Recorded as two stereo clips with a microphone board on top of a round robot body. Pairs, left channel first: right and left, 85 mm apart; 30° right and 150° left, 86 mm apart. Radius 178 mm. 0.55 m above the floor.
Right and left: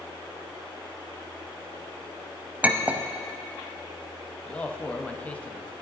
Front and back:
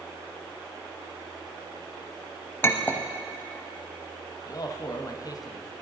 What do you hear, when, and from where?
2.6 s a clink: 25° left, 0.8 m
4.5 s a man speaking: 25° right, 0.8 m